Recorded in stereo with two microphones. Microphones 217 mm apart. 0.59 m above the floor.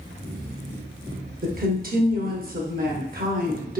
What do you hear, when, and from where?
1.4 s a woman speaking: 45° right (ahead or behind), 0.8 m